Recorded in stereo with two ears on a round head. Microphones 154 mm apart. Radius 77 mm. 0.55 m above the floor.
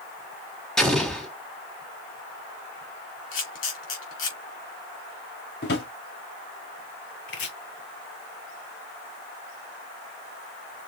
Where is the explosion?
5° left (ahead or behind), 1.8 m.